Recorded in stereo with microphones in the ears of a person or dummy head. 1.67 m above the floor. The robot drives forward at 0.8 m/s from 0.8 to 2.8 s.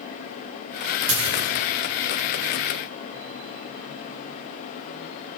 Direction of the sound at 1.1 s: 70° right (ahead or behind).